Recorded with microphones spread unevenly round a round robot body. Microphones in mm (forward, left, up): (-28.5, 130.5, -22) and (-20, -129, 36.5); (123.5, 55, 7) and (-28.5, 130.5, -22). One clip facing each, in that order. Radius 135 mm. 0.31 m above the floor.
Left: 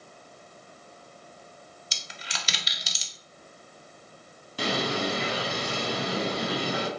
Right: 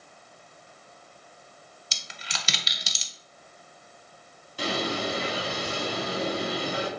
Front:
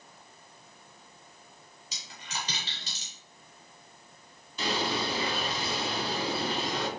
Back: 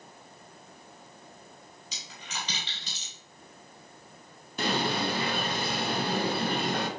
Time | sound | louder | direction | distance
1.9 | a dropped coin | right 1 dB, front 1 dB | 95° right | 0.5 m
4.6 | a bird | left 1 dB, back 2 dB | 115° left | 0.6 m